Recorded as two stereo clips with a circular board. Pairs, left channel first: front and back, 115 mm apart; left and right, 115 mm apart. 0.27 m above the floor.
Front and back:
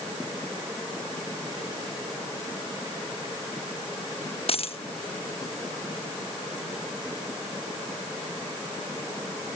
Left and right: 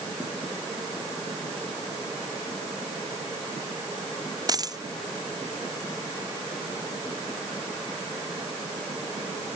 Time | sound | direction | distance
4.5 | a dropped coin | 35° right | ?